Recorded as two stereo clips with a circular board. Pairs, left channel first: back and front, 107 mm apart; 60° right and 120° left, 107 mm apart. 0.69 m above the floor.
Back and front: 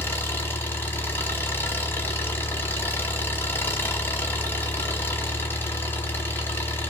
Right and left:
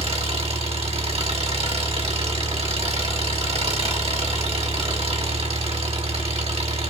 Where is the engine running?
110° left, 1.4 m.